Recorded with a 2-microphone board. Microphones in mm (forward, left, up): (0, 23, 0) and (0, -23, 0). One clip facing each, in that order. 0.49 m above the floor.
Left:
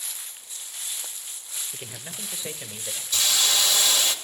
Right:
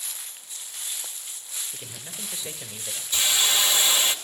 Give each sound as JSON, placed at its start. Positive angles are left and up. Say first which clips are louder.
{"t": 1.7, "sound": "a man speaking", "louder": "left 2 dB", "side_deg": 25, "distance_m": 1.6}
{"t": 3.1, "sound": "a hiss", "louder": "right 1 dB", "side_deg": -25, "distance_m": 1.7}